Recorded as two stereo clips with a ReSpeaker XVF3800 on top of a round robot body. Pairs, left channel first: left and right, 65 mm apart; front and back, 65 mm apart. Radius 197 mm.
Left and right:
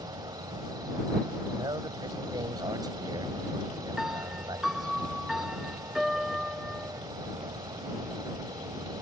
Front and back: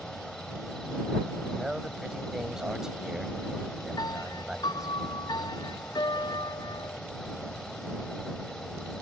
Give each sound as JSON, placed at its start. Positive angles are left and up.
{"t": 0.0, "sound": "an insect", "azimuth_deg": -80}
{"t": 1.6, "sound": "a man speaking", "azimuth_deg": -100}
{"t": 4.0, "sound": "a piano", "azimuth_deg": -5}